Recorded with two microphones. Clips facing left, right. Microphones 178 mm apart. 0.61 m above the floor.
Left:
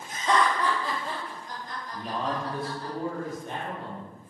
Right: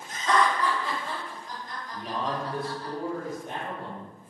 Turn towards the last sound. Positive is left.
turn(degrees=-15)  # may be behind; listen again after turning